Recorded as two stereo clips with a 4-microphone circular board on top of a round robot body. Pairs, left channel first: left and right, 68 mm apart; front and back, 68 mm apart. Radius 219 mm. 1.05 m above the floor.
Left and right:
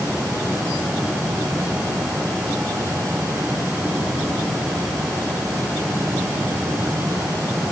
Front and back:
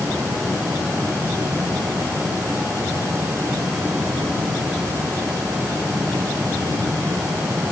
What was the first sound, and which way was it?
Only background noise.